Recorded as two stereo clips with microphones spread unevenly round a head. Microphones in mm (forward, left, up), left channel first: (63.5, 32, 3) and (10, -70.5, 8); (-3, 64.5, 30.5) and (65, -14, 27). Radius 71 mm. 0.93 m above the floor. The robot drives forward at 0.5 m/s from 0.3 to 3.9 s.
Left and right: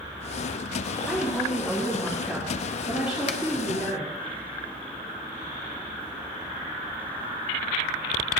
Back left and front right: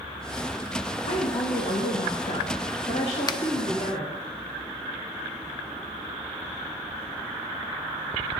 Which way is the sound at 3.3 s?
85° left.